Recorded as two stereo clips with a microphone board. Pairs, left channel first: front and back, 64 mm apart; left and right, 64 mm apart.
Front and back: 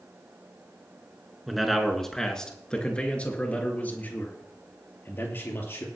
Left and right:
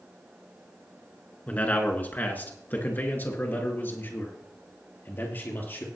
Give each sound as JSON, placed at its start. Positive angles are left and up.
{"t": 1.5, "sound": "a man speaking", "azimuth_deg": 95, "distance_m": 1.7}